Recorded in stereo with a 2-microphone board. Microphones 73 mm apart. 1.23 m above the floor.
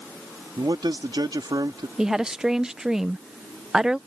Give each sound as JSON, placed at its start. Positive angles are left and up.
{"t": 0.6, "sound": "a man speaking", "side_deg": -75}
{"t": 2.0, "sound": "a woman speaking", "side_deg": -5}